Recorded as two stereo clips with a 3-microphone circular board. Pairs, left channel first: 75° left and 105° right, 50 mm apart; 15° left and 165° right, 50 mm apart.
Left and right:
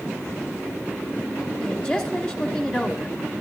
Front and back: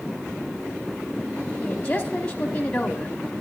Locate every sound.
1.6 s a woman speaking: 50° left, 1.1 m